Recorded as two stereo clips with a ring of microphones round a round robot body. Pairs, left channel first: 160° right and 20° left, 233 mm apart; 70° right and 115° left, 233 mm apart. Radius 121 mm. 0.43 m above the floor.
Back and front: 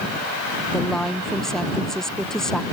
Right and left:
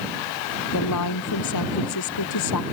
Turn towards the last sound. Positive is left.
turn(degrees=-70)